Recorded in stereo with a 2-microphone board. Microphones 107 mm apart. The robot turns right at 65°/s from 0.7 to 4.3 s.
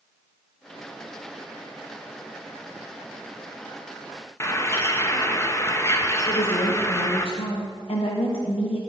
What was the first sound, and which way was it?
A bird, 25° left (ahead or behind).